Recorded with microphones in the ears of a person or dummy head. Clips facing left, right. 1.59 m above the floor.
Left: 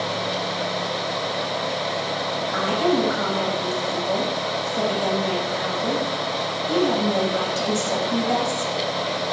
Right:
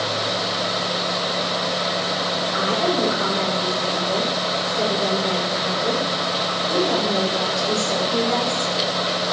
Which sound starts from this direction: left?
A woman speaking, at 2.5 s.